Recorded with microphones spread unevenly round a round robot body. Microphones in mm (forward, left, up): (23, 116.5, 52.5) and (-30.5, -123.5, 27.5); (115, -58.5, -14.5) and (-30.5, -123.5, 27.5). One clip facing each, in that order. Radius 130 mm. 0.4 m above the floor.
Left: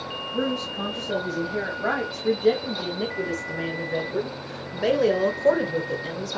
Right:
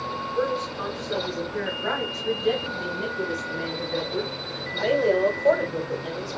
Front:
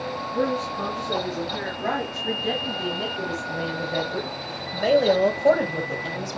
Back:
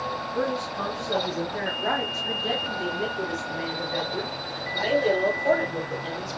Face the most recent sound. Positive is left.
turn(degrees=15)